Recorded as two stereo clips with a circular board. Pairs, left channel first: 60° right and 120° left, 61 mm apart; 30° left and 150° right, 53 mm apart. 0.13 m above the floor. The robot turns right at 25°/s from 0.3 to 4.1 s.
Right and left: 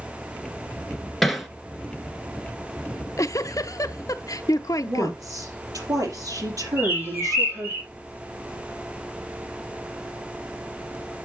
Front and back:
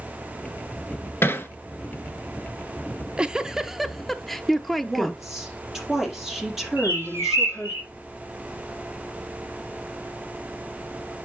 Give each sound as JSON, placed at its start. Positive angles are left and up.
{"t": 1.2, "sound": "hammering", "azimuth_deg": 25, "distance_m": 1.1}
{"t": 2.9, "sound": "a giggle", "azimuth_deg": -90, "distance_m": 0.5}
{"t": 4.8, "sound": "a woman speaking", "azimuth_deg": 125, "distance_m": 4.5}
{"t": 6.8, "sound": "a bird", "azimuth_deg": 175, "distance_m": 4.5}